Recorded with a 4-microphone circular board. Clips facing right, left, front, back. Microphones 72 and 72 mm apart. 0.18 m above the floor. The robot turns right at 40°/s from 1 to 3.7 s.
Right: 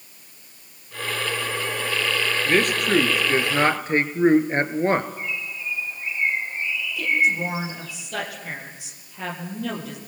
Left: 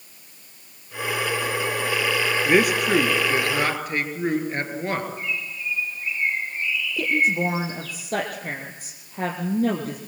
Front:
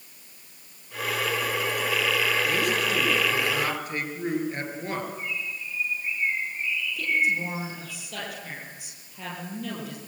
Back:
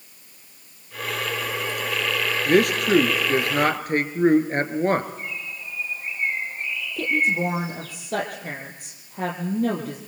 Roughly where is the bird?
Behind right.